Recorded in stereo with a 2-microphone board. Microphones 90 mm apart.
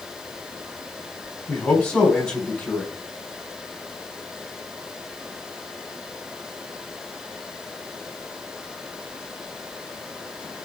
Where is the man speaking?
10° left (ahead or behind), 4 m.